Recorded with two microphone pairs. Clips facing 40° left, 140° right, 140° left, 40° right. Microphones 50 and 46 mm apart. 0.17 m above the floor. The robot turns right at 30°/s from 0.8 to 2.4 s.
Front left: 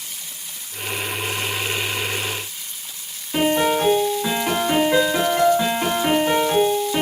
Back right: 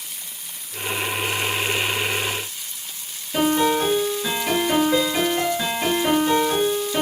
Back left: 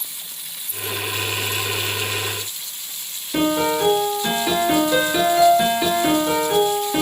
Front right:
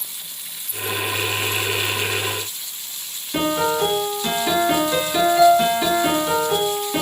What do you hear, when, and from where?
3.3 s a piano: 55° left, 1.7 m